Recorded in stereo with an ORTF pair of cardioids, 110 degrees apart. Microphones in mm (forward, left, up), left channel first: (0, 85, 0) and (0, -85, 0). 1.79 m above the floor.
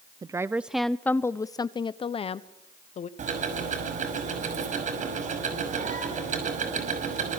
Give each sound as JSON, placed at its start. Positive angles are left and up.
{"t": 0.2, "sound": "a woman speaking", "azimuth_deg": -20, "distance_m": 0.8}
{"t": 3.2, "sound": "ticking", "azimuth_deg": -50, "distance_m": 6.0}